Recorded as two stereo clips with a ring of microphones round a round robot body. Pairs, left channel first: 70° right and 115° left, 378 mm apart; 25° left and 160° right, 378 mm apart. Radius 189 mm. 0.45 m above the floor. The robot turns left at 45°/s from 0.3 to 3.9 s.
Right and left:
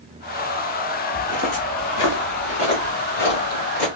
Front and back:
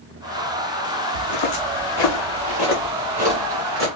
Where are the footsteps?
10° left, 1.2 m; by 3.9 s 100° right, 2.5 m.